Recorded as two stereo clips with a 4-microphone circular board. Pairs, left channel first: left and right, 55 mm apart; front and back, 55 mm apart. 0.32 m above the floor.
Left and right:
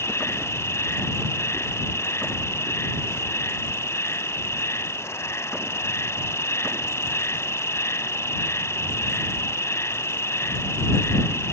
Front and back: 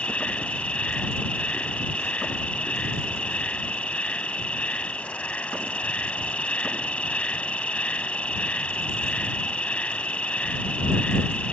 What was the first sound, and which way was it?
An insect, 65° left.